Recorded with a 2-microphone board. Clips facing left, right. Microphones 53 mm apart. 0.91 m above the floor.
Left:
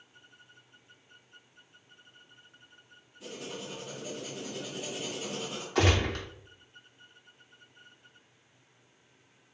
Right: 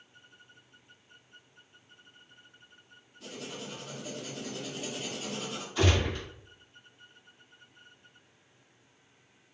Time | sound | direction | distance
3.2 | writing | 5° left (ahead or behind) | 1.1 m
5.8 | a gunshot | 70° left (ahead or behind) | 0.8 m